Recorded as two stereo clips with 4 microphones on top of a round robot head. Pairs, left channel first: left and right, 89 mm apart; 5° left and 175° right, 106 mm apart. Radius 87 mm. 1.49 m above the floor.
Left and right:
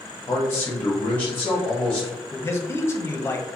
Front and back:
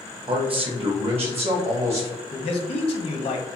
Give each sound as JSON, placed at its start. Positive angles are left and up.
{"t": 0.3, "sound": "a man speaking", "azimuth_deg": 150, "distance_m": 0.8}
{"t": 2.3, "sound": "a man speaking", "azimuth_deg": 30, "distance_m": 0.7}